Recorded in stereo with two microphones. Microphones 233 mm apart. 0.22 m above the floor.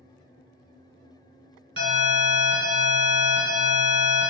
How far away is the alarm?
About 1.3 m.